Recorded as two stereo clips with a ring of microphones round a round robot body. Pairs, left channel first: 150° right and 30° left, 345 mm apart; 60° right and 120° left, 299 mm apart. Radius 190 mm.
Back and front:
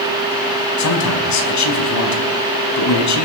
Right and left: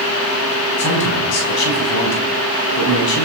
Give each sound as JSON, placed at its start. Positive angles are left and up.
{"t": 0.8, "sound": "a man speaking", "azimuth_deg": -105, "distance_m": 4.5}